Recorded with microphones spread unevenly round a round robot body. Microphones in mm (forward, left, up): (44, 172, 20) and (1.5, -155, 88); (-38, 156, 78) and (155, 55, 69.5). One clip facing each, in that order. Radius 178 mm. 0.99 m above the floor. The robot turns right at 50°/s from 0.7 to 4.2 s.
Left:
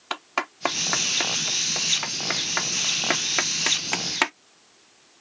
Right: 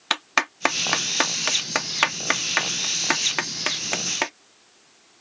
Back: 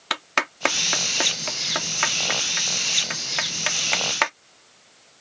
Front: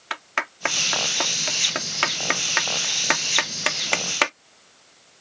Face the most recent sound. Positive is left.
turn(degrees=25)